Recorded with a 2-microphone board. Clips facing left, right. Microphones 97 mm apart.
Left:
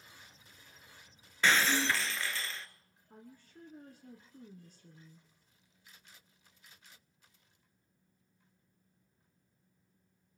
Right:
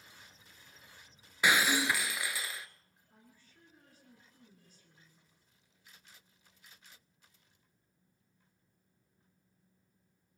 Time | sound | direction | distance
1.4 | breaking glass | 10° right (ahead or behind) | 0.9 m
3.1 | a woman speaking | 45° left (ahead or behind) | 2.5 m